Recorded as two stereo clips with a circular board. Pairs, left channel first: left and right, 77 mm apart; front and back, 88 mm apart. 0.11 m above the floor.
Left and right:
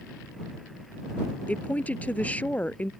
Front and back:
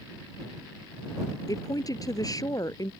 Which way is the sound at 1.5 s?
25° left.